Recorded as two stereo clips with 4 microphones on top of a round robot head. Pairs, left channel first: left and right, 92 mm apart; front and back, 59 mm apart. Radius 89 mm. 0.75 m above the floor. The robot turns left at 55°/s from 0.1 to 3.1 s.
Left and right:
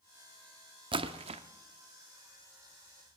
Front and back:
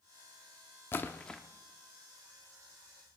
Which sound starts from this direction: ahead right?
A splash, at 0.9 s.